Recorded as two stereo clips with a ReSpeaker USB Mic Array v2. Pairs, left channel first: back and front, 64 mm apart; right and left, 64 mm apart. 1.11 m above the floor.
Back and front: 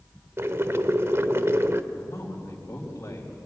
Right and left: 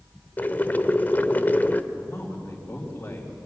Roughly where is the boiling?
Ahead right.